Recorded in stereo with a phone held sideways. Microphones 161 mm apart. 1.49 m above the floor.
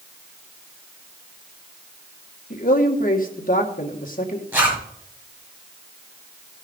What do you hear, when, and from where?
2.5 s a man speaking: 60° left (ahead or behind), 1.9 m
4.5 s a zipper: 15° right (ahead or behind), 5.5 m